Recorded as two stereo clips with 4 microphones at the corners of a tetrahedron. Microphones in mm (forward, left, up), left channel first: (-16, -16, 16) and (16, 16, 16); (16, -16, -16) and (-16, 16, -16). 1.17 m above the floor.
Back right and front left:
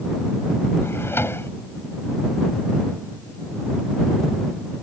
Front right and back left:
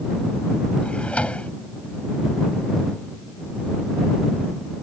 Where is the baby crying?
I don't hear a baby crying.